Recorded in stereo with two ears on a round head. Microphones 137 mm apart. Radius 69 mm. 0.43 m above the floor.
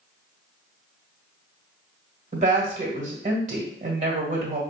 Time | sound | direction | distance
2.3 | a woman speaking | 50° right (ahead or behind) | 1.3 m